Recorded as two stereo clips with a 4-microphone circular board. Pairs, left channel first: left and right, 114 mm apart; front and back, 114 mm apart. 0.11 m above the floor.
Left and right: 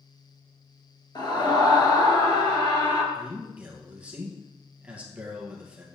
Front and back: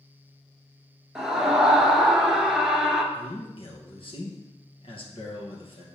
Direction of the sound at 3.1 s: 15° right.